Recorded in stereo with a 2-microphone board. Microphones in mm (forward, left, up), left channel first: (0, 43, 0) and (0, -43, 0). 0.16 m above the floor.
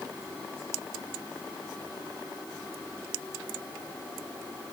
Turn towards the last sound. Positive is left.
No sound to turn to.